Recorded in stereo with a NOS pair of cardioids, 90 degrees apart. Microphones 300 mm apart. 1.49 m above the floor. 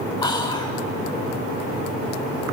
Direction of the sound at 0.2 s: 15° left.